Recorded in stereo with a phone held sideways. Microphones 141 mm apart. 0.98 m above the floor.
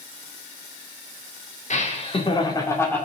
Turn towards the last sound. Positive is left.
turn(degrees=10)  # may be behind; listen again after turning